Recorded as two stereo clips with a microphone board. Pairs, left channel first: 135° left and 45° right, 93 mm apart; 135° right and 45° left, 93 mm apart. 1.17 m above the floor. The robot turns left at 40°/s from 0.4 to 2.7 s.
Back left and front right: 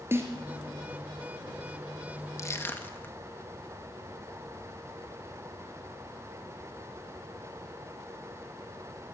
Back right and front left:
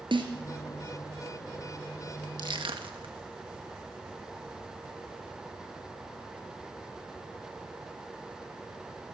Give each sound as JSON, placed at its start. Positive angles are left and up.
{"t": 0.1, "sound": "a snare drum", "azimuth_deg": 20, "distance_m": 4.0}
{"t": 2.4, "sound": "crushing", "azimuth_deg": 80, "distance_m": 2.0}